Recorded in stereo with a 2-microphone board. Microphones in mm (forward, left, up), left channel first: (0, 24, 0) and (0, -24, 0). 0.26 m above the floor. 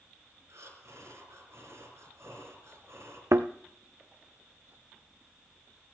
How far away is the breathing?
About 4.5 m.